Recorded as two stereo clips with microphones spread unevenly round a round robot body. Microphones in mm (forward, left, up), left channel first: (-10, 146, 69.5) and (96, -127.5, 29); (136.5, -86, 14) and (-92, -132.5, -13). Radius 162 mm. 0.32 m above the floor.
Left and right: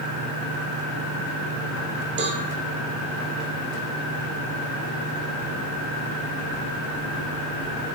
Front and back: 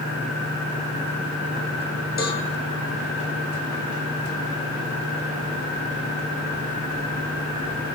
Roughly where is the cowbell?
Ahead right.